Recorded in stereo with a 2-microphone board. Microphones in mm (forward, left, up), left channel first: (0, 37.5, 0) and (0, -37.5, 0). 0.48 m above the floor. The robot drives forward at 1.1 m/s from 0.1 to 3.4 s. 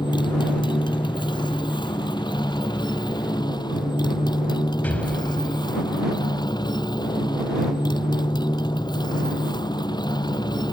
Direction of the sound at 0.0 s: 85° left.